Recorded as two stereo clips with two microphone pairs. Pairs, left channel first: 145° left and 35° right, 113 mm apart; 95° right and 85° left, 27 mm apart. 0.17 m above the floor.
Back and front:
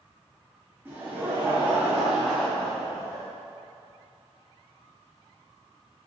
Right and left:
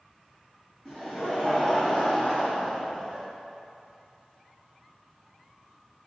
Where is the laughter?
70° right, 1.3 m; by 3.3 s 130° right, 1.9 m.